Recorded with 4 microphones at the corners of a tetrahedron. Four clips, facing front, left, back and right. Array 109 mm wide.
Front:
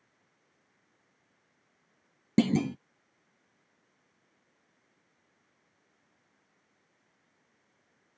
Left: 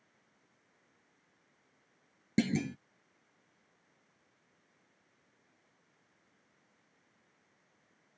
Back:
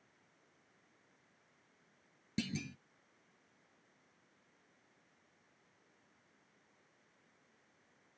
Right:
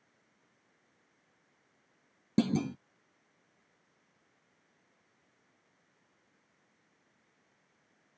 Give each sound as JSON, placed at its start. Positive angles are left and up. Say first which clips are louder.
{"t": 2.4, "sound": "a clunk", "louder": "right 2 dB, front 16 dB", "azimuth_deg": -5}